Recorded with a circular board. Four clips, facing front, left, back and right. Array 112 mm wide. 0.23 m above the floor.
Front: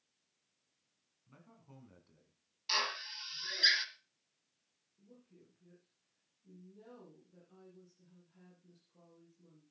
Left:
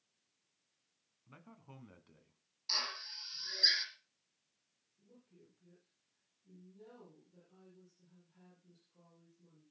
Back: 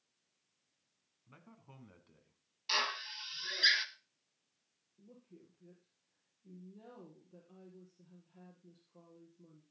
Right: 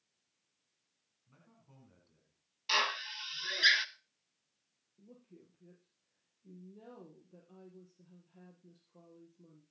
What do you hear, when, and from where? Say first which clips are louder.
1.3 s a man speaking: left 8 dB, back 1 dB; 115° left, 2.5 m
2.7 s a drill: right 11 dB, back 1 dB; 95° right, 1.1 m
5.0 s a woman speaking: right 6 dB, back 3 dB; 115° right, 5.5 m